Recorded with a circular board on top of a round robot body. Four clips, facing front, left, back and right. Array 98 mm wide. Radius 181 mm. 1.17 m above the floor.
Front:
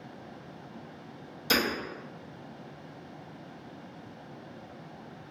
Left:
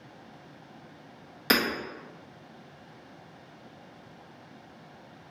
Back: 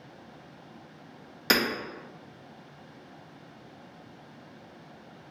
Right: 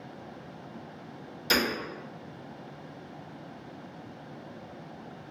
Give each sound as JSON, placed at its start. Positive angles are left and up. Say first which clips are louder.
{"t": 1.5, "sound": "hammering", "louder": "left 2 dB, back 2 dB", "azimuth_deg": 140, "distance_m": 1.3}